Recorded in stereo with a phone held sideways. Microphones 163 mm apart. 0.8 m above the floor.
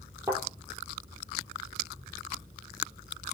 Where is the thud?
15° right (ahead or behind), 7.5 m.